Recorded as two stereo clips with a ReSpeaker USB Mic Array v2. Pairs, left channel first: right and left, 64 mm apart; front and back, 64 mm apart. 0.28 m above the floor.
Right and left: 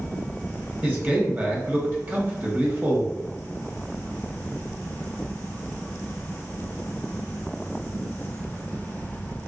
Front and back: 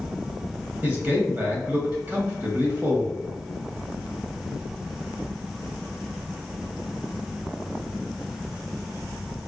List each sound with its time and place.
0.8 s a man speaking: 135° left, 1.4 m